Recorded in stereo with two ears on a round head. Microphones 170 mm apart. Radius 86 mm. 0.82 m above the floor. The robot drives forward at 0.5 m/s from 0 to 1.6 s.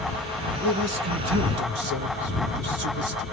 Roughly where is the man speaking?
Right.